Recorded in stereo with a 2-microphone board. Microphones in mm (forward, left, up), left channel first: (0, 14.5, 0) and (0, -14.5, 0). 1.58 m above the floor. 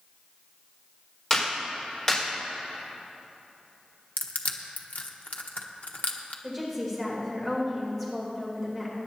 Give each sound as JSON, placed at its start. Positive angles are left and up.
{"t": 1.3, "sound": "a clap", "side_deg": 20, "distance_m": 4.5}
{"t": 4.2, "sound": "crushing", "side_deg": 60, "distance_m": 1.1}
{"t": 6.4, "sound": "a woman speaking", "side_deg": 10, "distance_m": 3.5}